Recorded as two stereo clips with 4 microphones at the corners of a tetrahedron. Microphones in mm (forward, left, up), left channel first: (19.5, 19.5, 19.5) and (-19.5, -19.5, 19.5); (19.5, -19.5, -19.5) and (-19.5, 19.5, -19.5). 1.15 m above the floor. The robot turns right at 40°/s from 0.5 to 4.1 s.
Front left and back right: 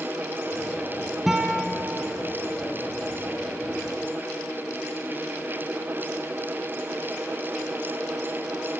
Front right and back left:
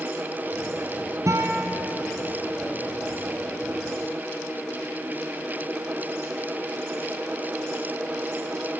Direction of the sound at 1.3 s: 140° left.